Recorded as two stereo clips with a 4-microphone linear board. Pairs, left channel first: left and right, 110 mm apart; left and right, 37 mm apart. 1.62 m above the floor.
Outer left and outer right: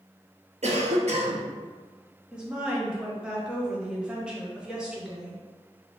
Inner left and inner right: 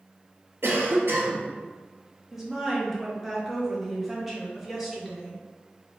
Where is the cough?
75° right (ahead or behind), 0.7 m.